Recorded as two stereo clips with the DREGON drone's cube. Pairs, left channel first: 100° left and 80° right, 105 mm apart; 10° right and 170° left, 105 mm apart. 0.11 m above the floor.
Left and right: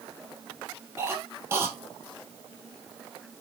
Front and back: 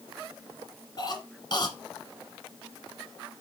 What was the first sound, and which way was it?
A cough, 30° right.